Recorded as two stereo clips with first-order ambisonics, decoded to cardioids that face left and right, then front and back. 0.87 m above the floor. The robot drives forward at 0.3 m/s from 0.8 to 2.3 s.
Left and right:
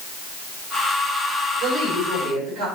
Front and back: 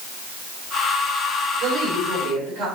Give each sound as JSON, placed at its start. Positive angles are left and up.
{"t": 1.6, "sound": "a woman speaking", "azimuth_deg": -140, "distance_m": 2.5}